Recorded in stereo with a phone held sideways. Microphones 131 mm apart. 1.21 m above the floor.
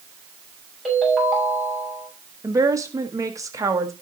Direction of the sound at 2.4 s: 25° right (ahead or behind).